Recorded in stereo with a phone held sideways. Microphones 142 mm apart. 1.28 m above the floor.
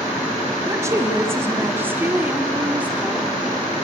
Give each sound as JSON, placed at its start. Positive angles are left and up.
{"t": 0.7, "sound": "a woman speaking", "side_deg": -20, "distance_m": 2.5}